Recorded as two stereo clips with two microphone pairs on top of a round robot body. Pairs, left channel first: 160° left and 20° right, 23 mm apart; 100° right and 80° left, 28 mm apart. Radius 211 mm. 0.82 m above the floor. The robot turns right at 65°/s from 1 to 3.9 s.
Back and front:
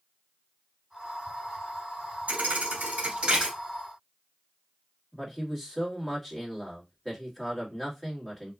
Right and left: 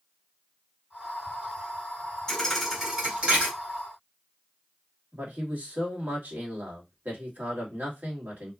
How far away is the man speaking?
About 1.8 m.